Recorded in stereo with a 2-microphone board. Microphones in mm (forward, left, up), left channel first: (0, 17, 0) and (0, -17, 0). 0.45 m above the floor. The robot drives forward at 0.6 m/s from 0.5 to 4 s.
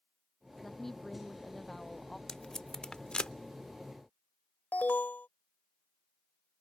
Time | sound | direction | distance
0.6 | a woman speaking | 10° left (ahead or behind) | ?
2.3 | tape being pulled | 20° left (ahead or behind) | ?
4.7 | an alarm | 65° left (ahead or behind) | ?